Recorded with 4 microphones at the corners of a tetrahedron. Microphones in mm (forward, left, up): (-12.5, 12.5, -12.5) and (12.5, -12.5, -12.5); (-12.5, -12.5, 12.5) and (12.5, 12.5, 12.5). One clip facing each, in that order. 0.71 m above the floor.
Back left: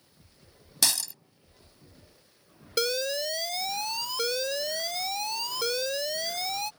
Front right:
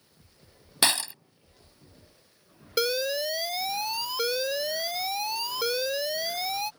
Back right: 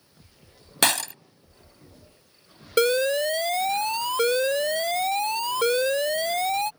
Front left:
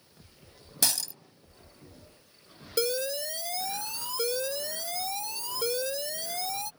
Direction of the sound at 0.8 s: 105° right.